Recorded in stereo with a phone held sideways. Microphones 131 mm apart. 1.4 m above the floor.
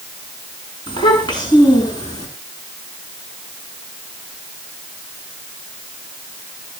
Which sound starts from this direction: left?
A child speaking, at 0.9 s.